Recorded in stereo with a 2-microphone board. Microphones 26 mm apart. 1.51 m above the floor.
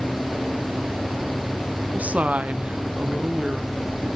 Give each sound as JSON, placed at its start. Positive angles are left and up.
{"t": 1.9, "sound": "a woman speaking", "side_deg": -70, "distance_m": 0.9}